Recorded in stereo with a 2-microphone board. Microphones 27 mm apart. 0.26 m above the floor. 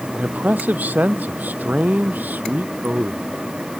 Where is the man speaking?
75° right (ahead or behind); by 3.3 s 85° right.